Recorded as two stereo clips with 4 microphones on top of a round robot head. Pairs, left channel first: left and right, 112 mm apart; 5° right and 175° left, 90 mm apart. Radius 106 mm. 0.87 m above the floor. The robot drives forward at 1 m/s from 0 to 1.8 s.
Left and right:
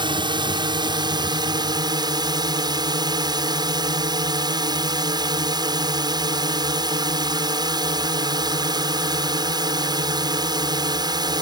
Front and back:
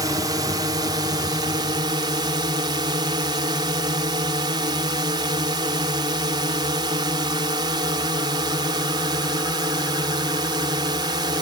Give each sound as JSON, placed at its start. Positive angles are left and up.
{"t": 0.0, "sound": "a drone", "azimuth_deg": -135}